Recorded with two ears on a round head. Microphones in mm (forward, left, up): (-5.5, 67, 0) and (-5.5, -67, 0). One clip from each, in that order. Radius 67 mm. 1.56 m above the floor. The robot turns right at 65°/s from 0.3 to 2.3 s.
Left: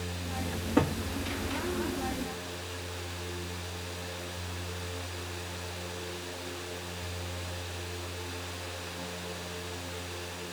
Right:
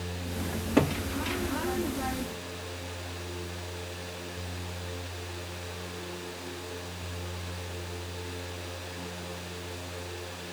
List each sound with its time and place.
0.5 s a cupboard door: 75° right (ahead or behind), 2 m; by 1.0 s 50° right (ahead or behind), 2 m